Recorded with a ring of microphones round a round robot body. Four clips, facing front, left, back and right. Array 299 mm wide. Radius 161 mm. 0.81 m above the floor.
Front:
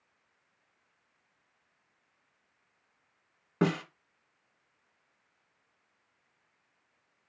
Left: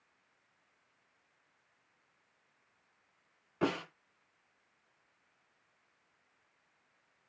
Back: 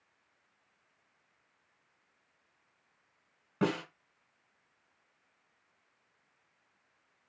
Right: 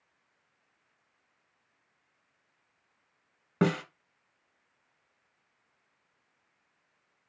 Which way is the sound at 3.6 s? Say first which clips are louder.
Right 6 dB, front 3 dB; 70° right.